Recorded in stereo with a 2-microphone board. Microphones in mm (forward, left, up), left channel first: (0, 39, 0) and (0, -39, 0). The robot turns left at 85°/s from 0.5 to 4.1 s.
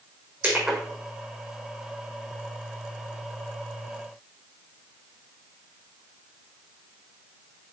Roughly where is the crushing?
Right.